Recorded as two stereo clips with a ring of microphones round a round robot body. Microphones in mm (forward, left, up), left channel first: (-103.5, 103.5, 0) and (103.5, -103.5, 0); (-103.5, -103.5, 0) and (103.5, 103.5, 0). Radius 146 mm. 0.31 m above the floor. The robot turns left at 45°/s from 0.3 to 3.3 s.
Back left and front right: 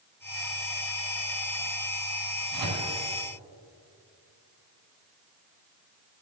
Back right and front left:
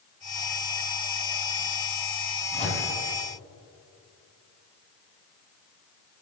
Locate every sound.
2.5 s a microwave: 60° right, 1.8 m; by 2.9 s 75° right, 1.8 m